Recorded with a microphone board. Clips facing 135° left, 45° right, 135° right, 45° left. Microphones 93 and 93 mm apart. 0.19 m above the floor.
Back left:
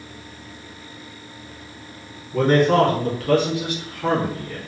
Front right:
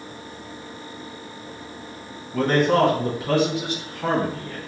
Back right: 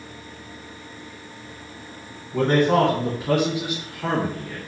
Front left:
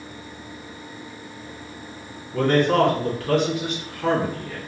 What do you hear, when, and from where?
2.3 s a man speaking: 150° right, 1.3 m; by 4.6 s 55° right, 1.8 m